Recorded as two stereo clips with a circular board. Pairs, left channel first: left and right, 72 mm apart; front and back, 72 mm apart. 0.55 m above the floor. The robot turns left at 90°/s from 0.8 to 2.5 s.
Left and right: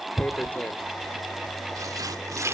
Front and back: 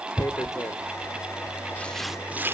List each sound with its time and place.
0.2 s tearing paper: 25° left, 1.2 m; by 2.5 s 130° right, 1.2 m